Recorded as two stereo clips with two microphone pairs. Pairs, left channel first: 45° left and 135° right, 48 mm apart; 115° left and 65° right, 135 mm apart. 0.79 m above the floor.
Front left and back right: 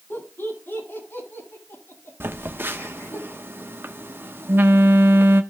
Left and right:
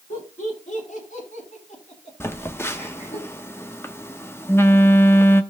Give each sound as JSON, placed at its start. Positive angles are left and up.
{"t": 0.1, "sound": "laughter", "azimuth_deg": 90, "distance_m": 8.5}
{"t": 2.2, "sound": "a phone buzzing", "azimuth_deg": -175, "distance_m": 0.9}